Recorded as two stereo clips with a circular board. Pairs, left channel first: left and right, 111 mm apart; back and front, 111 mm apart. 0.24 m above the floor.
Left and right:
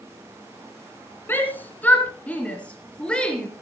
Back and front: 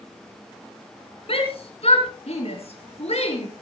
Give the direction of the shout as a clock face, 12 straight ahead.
7 o'clock.